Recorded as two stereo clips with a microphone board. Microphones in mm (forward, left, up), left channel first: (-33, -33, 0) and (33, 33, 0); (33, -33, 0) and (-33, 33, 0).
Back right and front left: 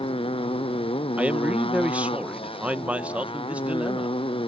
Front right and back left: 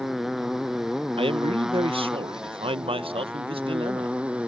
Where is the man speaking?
120° left.